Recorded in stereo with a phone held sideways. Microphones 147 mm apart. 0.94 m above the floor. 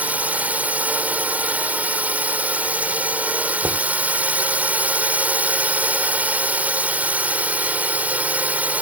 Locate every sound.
0.0 s a drone: 10° right (ahead or behind)
3.6 s knocking: 20° right (ahead or behind)